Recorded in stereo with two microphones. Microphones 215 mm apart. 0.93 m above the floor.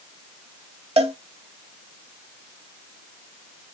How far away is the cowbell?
About 0.8 m.